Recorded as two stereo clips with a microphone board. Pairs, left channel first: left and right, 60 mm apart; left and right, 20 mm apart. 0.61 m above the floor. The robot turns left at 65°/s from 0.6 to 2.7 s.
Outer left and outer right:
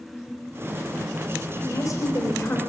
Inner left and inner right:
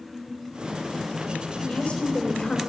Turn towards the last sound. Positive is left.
turn(degrees=35)